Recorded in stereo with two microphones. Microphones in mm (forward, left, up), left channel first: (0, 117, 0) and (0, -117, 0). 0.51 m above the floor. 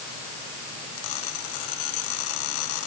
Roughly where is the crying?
I don't hear crying.